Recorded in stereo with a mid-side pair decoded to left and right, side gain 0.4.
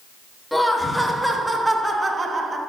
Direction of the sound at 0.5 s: 5° left.